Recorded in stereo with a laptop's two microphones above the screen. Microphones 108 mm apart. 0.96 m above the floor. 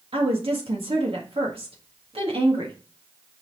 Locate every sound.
0.1 s a woman speaking: 60° right (ahead or behind), 1.9 m